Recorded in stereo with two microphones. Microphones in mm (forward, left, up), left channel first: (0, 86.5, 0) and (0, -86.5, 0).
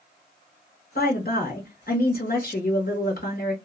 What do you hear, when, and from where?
0.9 s a woman speaking: 65° left (ahead or behind), 1.2 m